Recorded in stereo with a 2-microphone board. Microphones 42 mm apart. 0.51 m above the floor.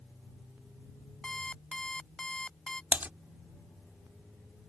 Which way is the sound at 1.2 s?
20° left (ahead or behind).